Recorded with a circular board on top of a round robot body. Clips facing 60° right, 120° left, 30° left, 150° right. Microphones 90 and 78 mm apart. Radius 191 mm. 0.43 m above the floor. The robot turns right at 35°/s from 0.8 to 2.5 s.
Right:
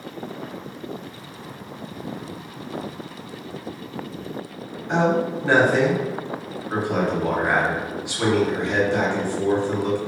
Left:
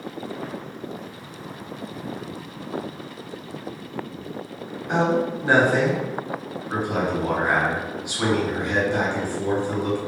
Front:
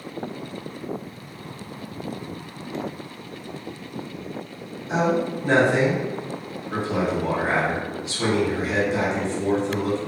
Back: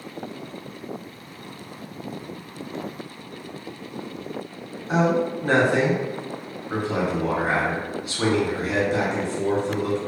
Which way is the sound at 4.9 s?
170° right.